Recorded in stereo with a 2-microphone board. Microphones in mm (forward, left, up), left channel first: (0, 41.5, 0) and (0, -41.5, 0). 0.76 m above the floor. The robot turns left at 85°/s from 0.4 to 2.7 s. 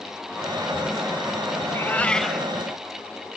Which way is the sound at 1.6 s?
55° left.